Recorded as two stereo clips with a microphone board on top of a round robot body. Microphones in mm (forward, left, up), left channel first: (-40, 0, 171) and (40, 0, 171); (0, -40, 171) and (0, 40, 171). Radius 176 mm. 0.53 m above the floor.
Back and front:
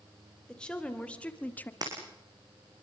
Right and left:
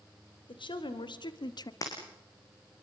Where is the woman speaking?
100° right, 3.5 m; by 1.7 s 115° right, 1.8 m.